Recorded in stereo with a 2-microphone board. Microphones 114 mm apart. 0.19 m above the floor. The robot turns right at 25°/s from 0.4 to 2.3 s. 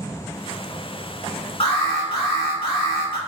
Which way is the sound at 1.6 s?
55° left (ahead or behind).